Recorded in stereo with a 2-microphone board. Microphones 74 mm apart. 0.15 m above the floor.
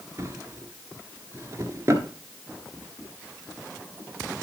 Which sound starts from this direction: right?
A drawer, at 0.2 s.